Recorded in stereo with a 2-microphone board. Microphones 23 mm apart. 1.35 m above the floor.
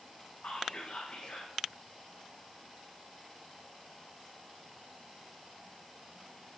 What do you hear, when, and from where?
0.4 s whispering: 65° left (ahead or behind), 1.7 m